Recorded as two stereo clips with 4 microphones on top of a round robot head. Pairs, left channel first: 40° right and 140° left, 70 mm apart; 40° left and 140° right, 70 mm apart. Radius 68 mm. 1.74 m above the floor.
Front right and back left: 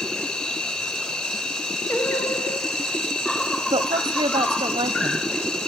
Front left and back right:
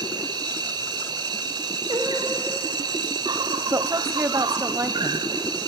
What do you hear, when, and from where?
0.0 s an insect: 120° right, 1.9 m
1.9 s singing: 100° right, 1.4 m
3.7 s a woman speaking: 165° left, 1.2 m